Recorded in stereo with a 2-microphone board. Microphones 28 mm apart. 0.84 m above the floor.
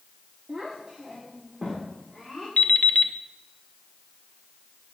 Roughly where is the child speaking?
Right.